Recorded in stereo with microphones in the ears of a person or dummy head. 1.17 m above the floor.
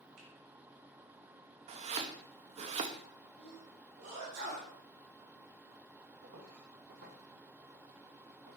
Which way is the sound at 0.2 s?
85° right.